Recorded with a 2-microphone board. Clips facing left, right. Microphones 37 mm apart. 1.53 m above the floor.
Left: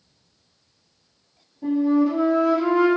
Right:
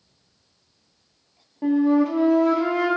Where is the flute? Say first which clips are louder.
Right 1 dB; 75° right (ahead or behind), 0.8 m.